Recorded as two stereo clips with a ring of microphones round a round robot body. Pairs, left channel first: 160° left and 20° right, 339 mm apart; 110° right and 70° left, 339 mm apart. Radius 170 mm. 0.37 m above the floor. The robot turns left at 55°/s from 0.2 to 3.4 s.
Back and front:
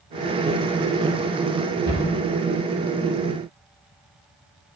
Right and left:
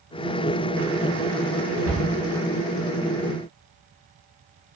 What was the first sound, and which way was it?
A cupboard door, 55° left.